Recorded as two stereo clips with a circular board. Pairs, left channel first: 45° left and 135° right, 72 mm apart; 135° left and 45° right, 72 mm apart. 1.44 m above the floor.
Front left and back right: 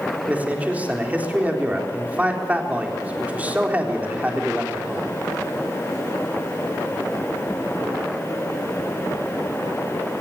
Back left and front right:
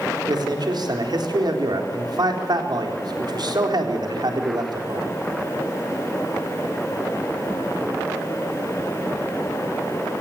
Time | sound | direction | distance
0.3 | a man speaking | 65° right | 3.5 m